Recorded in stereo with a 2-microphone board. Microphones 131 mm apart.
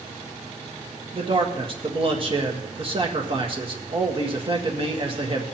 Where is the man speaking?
40° right (ahead or behind), 1.5 m.